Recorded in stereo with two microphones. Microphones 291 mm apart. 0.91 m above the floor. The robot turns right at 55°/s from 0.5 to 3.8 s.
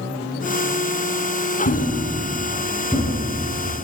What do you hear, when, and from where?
1.6 s a thud: 70° left (ahead or behind), 4 m; by 3.1 s 5° right (ahead or behind), 4 m